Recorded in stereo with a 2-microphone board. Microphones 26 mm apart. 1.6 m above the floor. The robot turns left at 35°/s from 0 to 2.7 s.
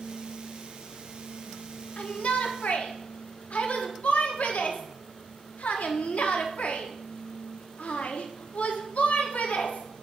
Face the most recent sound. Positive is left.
turn(degrees=70)  # may be behind; listen again after turning